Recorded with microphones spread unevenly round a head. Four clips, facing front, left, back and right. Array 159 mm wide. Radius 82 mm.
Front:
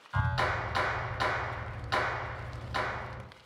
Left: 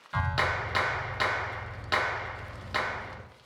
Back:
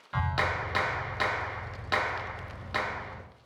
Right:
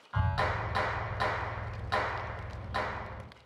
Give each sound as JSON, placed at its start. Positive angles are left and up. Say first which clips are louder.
{"t": 0.1, "sound": "a clap", "louder": "left 2 dB, back 1 dB", "azimuth_deg": 140, "distance_m": 0.9}